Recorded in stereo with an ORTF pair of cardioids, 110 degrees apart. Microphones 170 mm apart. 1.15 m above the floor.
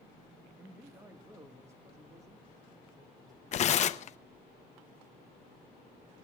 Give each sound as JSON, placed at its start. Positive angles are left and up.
{"t": 0.6, "sound": "a man speaking", "azimuth_deg": -10, "distance_m": 1.1}
{"t": 3.5, "sound": "tearing paper", "azimuth_deg": 45, "distance_m": 0.7}